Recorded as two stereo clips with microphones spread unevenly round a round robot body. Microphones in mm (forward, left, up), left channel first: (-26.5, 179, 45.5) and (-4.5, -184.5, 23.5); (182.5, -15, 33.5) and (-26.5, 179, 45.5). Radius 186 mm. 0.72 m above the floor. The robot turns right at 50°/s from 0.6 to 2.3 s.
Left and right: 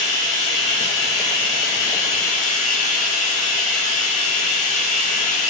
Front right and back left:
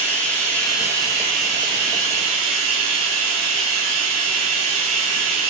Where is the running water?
45° left, 1.2 m; by 5.5 s 130° left, 1.2 m.